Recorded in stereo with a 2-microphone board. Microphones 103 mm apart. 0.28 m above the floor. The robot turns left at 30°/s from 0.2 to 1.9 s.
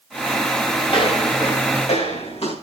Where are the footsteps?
60° left (ahead or behind), 8 m; by 2.5 s 85° left, 7 m.